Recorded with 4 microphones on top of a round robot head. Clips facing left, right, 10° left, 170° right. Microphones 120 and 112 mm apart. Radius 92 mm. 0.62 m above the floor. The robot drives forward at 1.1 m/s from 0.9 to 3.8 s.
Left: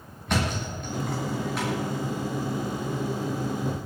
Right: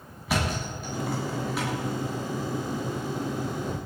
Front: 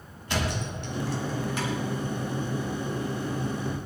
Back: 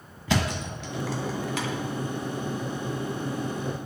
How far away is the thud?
About 1.9 m.